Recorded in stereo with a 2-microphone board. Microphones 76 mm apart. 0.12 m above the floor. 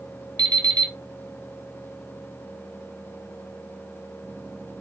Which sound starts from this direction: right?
An alarm clock, at 0.4 s.